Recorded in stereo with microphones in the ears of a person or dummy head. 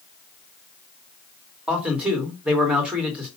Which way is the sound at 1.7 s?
Centre (ahead or behind).